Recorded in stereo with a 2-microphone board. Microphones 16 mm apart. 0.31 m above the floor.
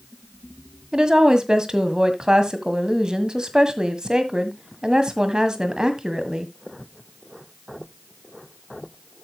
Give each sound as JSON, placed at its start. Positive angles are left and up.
{"t": 0.9, "sound": "a woman speaking", "side_deg": -40, "distance_m": 1.7}